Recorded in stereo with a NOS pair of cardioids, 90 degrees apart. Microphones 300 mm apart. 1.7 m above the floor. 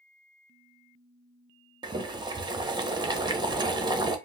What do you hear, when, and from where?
1.8 s boiling: 15° right, 0.6 m